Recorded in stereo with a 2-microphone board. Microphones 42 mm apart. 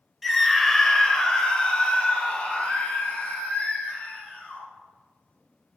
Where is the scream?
Centre (ahead or behind), 0.9 m; by 4.6 s 30° left (ahead or behind), 3.5 m.